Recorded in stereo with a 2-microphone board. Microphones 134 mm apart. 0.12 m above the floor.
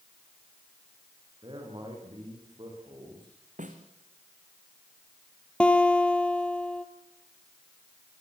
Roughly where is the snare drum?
Right.